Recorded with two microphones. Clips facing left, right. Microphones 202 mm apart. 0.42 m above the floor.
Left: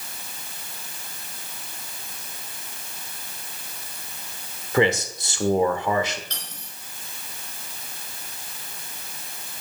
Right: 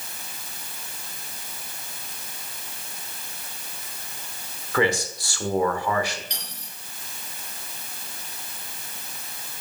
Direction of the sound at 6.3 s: 15° right (ahead or behind).